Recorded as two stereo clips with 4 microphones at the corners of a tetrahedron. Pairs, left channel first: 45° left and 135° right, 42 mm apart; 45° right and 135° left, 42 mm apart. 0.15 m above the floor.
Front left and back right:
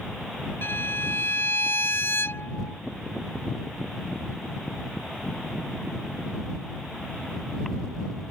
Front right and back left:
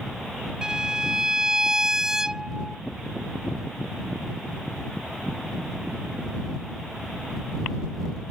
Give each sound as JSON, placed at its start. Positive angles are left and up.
{"t": 0.6, "sound": "a violin", "azimuth_deg": 60}